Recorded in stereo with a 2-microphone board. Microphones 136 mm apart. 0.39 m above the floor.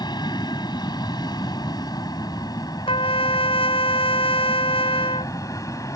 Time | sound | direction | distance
0.0 | an aircraft | 30° left (ahead or behind) | ?
2.9 | a trumpet | 40° left (ahead or behind) | ?